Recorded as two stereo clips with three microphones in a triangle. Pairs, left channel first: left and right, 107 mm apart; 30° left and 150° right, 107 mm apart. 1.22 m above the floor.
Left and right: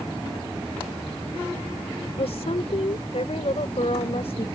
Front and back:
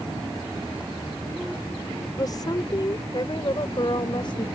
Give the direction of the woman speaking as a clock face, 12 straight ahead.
9 o'clock.